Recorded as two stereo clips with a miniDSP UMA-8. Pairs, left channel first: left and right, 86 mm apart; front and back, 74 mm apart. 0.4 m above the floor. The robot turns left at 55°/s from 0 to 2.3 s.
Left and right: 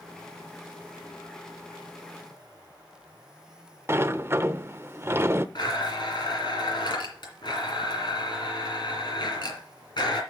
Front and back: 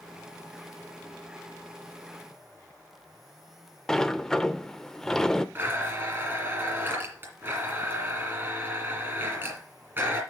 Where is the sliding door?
75° right, 0.5 m.